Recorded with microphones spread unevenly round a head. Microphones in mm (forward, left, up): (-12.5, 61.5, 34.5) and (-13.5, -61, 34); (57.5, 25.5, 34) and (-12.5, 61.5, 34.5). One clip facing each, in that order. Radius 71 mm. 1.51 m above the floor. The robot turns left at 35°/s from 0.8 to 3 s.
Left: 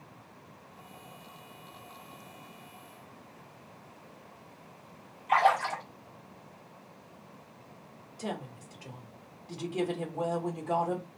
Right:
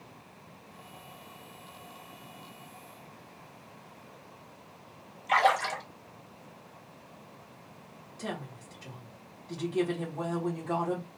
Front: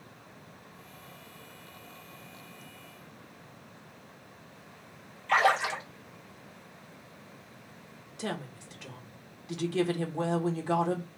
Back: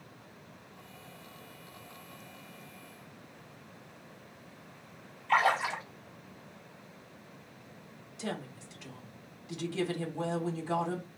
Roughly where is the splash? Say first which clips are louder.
Left 1 dB, front 2 dB; ahead right.